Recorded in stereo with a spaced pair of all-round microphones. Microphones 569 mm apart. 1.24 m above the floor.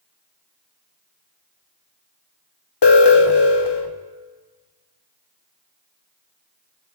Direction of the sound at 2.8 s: 45° left (ahead or behind).